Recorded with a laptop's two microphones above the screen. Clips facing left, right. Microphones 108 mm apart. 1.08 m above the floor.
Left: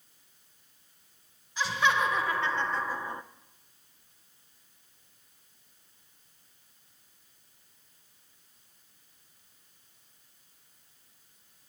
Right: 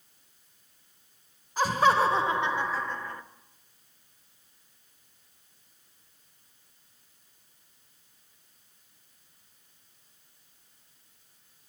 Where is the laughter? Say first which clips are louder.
Right 5 dB; 45° right (ahead or behind), 0.9 m; by 3.2 s 25° left (ahead or behind), 0.6 m.